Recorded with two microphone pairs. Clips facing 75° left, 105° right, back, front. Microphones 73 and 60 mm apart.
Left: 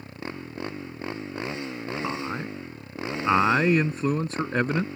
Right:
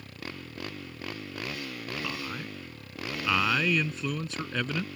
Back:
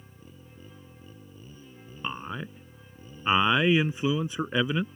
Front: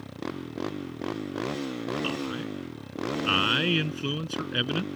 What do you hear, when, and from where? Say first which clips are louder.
0.0 s a motorcycle: left 5 dB, front 17 dB; 5° left
2.0 s a man speaking: left 6 dB, front 4 dB; 120° left